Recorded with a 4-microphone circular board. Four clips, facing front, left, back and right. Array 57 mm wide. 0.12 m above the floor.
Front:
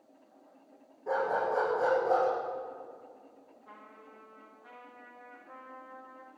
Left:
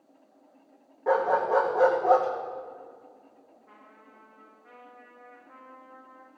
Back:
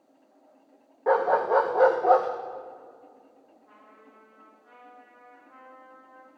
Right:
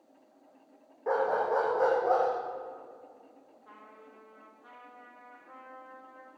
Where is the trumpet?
65° right, 5.5 m.